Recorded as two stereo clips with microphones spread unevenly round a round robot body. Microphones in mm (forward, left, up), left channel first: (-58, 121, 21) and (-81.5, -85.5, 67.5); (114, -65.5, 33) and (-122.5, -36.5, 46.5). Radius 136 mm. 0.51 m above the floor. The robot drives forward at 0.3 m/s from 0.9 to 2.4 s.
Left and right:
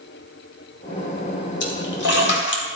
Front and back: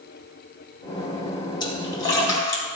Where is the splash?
65° left, 2.5 m; by 2.6 s 70° left, 2.5 m.